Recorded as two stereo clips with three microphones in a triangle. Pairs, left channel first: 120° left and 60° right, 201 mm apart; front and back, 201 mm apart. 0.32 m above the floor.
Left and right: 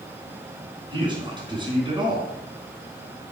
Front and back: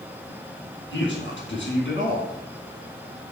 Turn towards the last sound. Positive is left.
turn(degrees=5)